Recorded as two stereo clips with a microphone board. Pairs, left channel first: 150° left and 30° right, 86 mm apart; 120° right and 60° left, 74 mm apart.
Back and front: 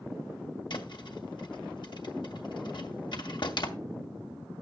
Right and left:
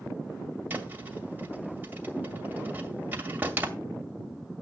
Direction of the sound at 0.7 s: 125° left.